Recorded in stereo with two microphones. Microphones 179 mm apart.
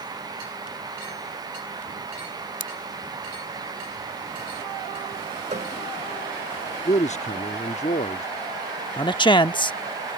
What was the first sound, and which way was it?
Scissors, 85° left.